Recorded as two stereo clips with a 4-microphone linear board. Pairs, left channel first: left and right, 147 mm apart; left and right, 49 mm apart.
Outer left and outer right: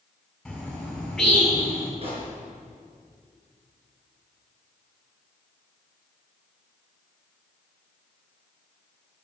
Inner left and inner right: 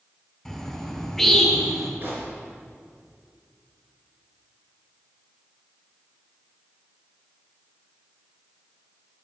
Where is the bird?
Centre (ahead or behind), 3.5 m.